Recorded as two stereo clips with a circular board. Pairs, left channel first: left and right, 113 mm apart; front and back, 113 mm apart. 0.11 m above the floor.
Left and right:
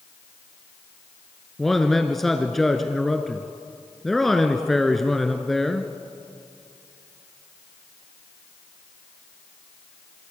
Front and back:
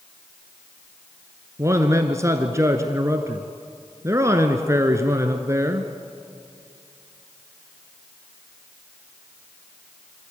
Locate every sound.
1.6 s a man speaking: 175° left, 1.3 m